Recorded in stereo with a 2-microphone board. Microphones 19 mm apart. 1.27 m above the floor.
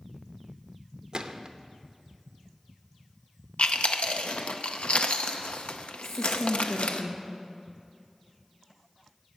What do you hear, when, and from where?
1.1 s a gunshot: 50° right (ahead or behind), 0.7 m
3.6 s chewing: 80° left, 0.7 m
6.0 s a woman speaking: centre (ahead or behind), 1.4 m